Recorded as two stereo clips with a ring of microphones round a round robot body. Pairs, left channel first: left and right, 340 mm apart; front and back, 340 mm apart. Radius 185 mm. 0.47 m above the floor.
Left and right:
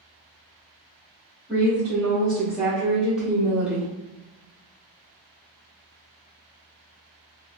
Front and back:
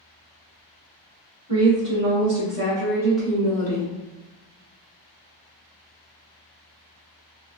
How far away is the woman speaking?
About 1.6 m.